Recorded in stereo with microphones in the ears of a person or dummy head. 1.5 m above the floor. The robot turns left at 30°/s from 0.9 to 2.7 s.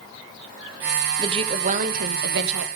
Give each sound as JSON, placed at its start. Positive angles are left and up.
{"t": 1.2, "sound": "a woman speaking", "azimuth_deg": -30, "distance_m": 0.7}